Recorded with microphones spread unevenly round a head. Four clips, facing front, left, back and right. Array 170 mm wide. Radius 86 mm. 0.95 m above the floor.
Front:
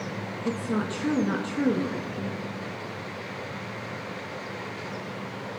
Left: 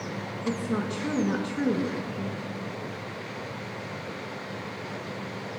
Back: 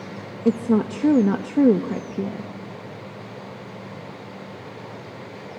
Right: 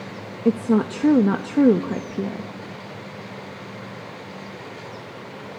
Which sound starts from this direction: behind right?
A woman speaking, at 0.5 s.